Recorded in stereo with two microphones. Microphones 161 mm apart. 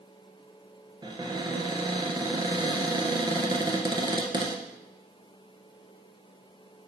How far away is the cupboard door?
About 1.7 m.